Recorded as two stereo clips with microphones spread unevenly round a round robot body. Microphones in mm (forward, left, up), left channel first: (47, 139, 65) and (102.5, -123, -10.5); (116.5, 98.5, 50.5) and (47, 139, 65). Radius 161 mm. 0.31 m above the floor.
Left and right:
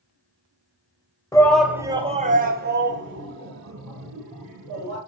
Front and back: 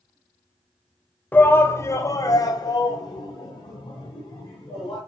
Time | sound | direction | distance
1.3 | a shout | 10° left | 1.5 m